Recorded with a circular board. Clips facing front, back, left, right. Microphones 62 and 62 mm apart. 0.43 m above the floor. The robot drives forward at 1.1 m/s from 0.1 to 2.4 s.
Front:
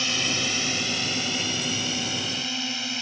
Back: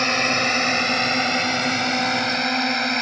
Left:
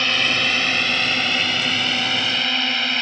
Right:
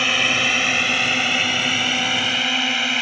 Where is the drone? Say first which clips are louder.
Back 8 dB, right 1 dB; 170° right; by 3.0 s 175° right.